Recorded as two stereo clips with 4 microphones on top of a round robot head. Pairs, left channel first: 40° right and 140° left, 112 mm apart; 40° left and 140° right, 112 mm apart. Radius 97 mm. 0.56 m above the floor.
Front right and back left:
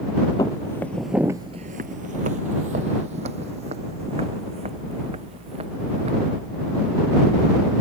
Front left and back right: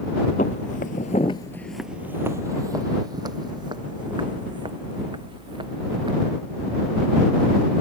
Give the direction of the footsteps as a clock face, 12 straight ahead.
11 o'clock.